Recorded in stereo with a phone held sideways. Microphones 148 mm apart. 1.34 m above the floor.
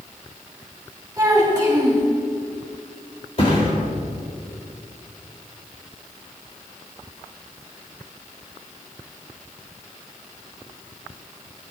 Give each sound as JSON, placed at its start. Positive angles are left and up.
{"t": 1.2, "sound": "a child speaking", "side_deg": -20, "distance_m": 2.0}
{"t": 3.4, "sound": "a thud", "side_deg": 45, "distance_m": 2.5}